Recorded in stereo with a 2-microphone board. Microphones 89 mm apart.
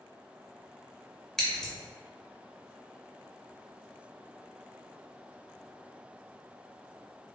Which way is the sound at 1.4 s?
5° left (ahead or behind).